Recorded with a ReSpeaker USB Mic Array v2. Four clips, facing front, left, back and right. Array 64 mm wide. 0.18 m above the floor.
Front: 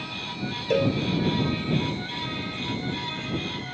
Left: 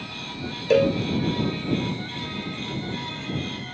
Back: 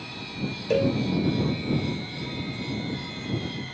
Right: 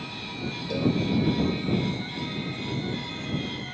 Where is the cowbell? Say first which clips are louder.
Left 7 dB, even; 90° left.